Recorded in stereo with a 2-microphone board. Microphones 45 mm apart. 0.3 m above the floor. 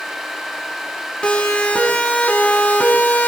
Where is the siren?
20° left (ahead or behind), 5 m; by 3.3 s 35° left (ahead or behind), 5 m.